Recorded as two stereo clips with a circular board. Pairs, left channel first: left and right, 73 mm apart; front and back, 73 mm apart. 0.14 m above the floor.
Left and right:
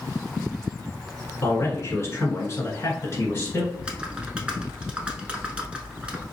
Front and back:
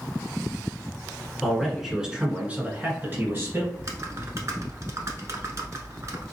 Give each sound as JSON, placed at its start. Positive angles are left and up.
{"t": 1.4, "sound": "a man speaking", "azimuth_deg": 85, "distance_m": 1.4}
{"t": 3.7, "sound": "typing on a keyboard", "azimuth_deg": -160, "distance_m": 0.7}